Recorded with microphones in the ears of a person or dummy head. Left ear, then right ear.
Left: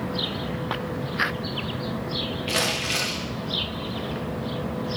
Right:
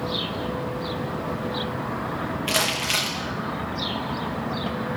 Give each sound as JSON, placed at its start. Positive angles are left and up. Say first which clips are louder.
{"t": 2.5, "sound": "crumpling", "louder": "right 2 dB", "side_deg": -35, "distance_m": 3.0}